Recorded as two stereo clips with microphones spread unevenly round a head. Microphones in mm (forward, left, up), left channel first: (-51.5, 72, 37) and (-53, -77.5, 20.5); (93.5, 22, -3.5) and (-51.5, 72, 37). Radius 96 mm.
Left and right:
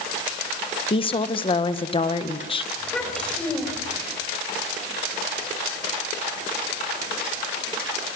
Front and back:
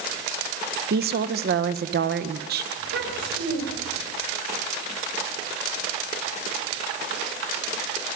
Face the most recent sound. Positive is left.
turn(degrees=170)